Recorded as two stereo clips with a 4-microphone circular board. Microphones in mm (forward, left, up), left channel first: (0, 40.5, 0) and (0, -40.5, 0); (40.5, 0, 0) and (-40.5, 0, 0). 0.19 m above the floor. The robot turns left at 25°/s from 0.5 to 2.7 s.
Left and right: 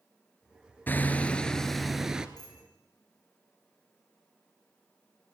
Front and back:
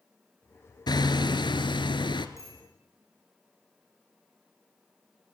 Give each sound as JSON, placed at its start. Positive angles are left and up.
{"t": 0.9, "sound": "hammering", "azimuth_deg": 25, "distance_m": 1.4}
{"t": 2.4, "sound": "a bicycle bell", "azimuth_deg": 55, "distance_m": 9.5}